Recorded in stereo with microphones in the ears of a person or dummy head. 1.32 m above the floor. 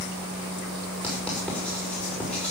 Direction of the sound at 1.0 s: 5° left (ahead or behind).